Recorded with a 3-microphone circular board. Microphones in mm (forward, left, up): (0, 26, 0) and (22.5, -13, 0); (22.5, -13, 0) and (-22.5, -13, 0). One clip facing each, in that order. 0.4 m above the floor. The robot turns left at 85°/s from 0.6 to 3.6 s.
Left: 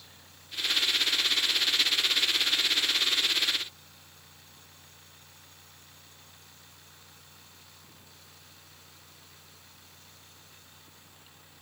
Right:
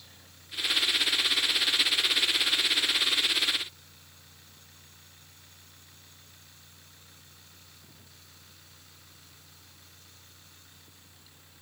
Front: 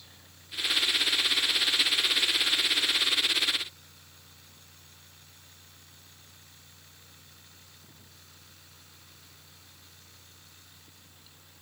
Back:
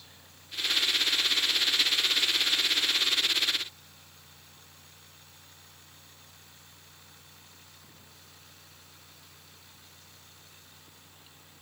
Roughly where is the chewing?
I don't hear chewing.